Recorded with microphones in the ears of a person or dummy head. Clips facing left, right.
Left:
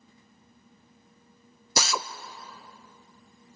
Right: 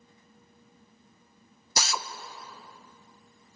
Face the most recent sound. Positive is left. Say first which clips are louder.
# left 3 dB
turn(degrees=65)  # may be behind; listen again after turning